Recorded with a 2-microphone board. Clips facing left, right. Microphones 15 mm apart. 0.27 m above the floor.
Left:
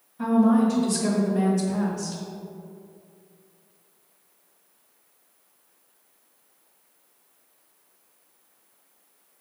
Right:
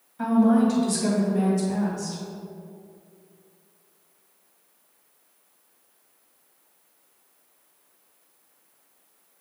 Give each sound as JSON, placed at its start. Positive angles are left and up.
{"t": 0.2, "sound": "a woman speaking", "side_deg": -30, "distance_m": 1.7}